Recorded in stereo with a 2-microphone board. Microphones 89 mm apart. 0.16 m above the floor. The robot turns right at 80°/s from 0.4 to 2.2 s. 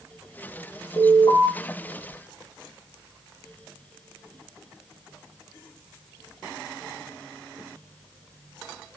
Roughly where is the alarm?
Left.